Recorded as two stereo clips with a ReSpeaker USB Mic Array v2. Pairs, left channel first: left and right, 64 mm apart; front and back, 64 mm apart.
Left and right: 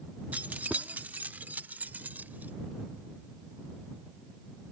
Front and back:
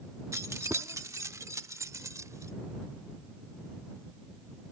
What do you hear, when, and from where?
0.3 s keys jangling: 150° right